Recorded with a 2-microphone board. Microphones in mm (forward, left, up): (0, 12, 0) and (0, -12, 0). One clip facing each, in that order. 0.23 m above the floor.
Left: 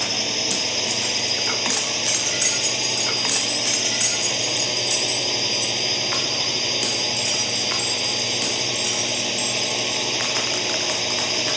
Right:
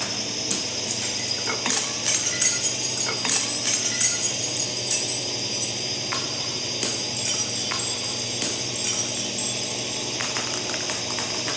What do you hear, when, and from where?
0.0 s a drone: 30° left (ahead or behind)